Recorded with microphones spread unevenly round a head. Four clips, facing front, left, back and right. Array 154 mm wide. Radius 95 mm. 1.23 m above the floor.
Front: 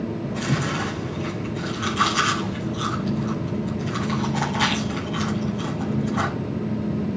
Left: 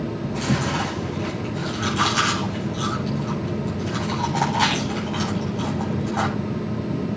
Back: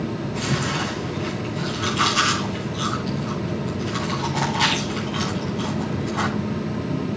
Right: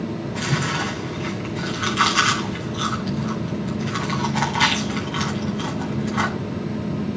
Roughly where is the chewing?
Ahead left.